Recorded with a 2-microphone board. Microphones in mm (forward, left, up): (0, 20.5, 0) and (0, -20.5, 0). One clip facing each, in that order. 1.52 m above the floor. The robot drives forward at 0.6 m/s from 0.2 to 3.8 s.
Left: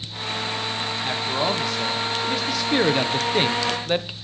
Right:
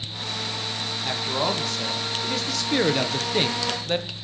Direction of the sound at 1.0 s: 5° left (ahead or behind).